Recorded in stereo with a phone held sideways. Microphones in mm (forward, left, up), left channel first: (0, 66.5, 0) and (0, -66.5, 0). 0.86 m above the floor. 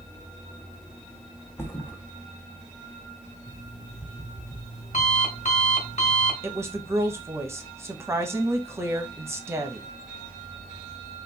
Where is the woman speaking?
20° right (ahead or behind), 0.8 m.